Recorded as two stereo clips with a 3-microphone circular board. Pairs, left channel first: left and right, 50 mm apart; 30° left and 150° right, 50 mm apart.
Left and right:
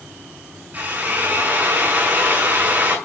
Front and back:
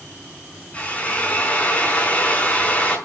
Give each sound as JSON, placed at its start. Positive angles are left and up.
{"t": 0.7, "sound": "a drill", "azimuth_deg": -35, "distance_m": 5.5}